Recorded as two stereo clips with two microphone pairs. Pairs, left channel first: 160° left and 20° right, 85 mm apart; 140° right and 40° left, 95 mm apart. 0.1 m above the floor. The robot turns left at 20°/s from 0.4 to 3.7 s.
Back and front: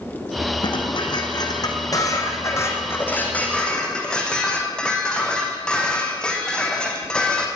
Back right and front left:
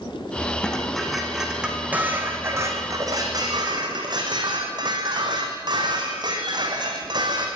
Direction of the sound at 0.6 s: 140° left.